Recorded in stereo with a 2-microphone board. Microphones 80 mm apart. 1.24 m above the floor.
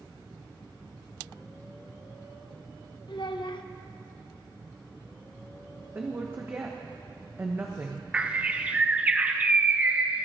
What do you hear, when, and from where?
3.1 s a child speaking: 65° left (ahead or behind), 0.8 m
6.0 s a woman speaking: 25° right (ahead or behind), 0.9 m
8.1 s a bird: 15° right (ahead or behind), 0.6 m